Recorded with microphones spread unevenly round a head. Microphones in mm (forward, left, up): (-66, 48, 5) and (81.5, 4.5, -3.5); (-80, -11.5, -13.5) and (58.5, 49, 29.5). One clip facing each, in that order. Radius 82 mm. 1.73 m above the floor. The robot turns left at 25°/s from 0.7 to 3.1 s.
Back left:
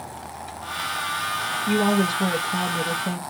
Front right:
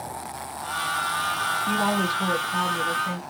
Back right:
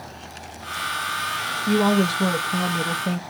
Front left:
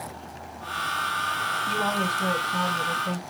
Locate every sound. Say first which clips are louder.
1.7 s a woman speaking: back left 5 dB, back right 10 dB; 115° right, 0.7 m; by 3.2 s 155° right, 0.7 m